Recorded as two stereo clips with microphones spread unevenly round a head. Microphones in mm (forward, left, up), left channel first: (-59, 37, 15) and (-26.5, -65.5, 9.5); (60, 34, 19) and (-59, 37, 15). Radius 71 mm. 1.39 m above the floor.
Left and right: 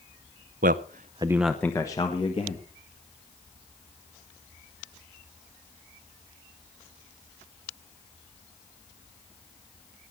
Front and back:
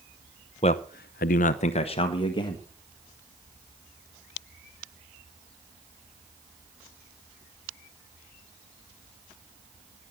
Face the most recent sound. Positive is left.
turn(degrees=55)